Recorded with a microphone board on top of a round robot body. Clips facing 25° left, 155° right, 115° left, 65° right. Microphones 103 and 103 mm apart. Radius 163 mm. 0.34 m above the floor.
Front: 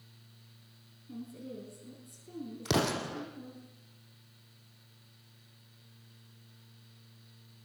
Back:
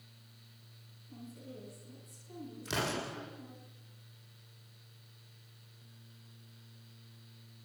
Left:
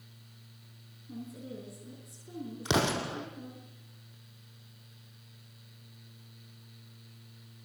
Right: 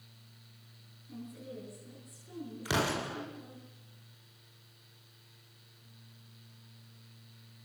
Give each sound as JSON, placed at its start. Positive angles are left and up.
{"t": 1.1, "sound": "a woman speaking", "azimuth_deg": 50, "distance_m": 6.5}
{"t": 2.6, "sound": "an explosion", "azimuth_deg": 45, "distance_m": 4.5}